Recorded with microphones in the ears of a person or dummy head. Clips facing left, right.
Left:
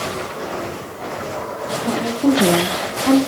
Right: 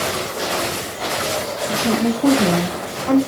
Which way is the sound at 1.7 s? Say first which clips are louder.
Right 3 dB; 30° right (ahead or behind).